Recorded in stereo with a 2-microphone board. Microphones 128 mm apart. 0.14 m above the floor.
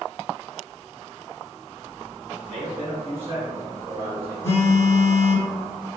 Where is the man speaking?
5° right (ahead or behind), 1.2 m; by 4.3 s 25° right (ahead or behind), 1.7 m.